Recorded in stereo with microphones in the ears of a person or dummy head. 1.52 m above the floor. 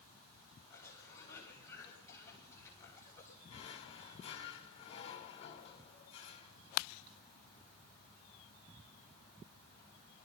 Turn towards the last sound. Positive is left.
turn(degrees=35)  # may be behind; listen again after turning